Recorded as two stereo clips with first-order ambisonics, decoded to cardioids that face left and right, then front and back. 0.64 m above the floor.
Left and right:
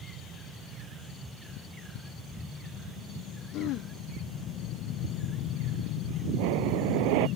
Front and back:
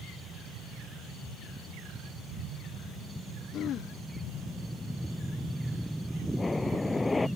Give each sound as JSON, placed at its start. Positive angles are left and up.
{"t": 3.5, "sound": "throat clearing", "azimuth_deg": 50}
{"t": 6.4, "sound": "breathing", "azimuth_deg": -75}